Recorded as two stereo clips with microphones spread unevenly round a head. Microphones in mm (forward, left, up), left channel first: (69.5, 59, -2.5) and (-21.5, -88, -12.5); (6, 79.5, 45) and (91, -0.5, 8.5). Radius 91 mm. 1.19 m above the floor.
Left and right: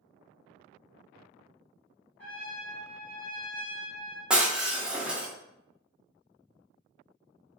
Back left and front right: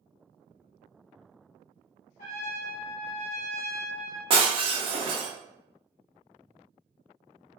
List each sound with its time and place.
2.2 s a trumpet: 140° left, 1.0 m
4.3 s breaking glass: 40° right, 0.5 m